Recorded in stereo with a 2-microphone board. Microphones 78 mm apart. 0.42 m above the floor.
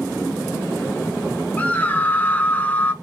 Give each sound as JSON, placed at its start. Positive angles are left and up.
{"t": 1.6, "sound": "a scream", "side_deg": 20, "distance_m": 0.8}